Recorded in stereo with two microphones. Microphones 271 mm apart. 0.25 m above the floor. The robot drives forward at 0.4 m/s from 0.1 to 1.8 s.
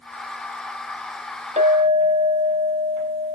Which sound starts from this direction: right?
A clink, at 1.6 s.